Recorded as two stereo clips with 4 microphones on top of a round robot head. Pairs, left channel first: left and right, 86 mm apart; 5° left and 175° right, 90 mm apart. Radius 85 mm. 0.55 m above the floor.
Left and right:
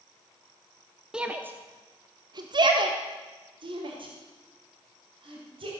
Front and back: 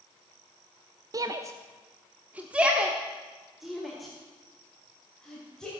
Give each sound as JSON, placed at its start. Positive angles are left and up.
{"t": 1.1, "sound": "a shout", "azimuth_deg": -165, "distance_m": 0.7}